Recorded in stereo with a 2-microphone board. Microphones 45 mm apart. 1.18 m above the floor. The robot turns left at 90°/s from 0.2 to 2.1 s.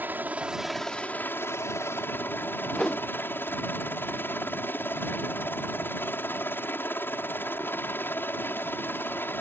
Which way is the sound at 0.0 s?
135° right.